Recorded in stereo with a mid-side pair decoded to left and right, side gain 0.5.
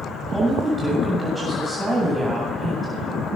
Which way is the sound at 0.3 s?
Straight ahead.